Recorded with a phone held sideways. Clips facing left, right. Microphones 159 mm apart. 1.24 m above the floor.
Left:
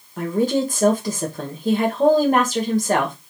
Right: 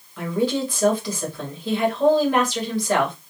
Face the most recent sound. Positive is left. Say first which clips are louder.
# left 3 dB
turn(degrees=45)  # may be behind; listen again after turning